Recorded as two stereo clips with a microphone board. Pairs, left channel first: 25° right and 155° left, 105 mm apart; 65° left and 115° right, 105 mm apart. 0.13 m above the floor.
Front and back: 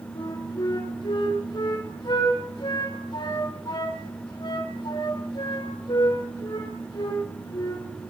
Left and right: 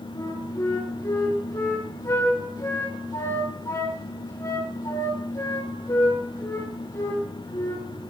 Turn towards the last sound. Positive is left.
turn(degrees=10)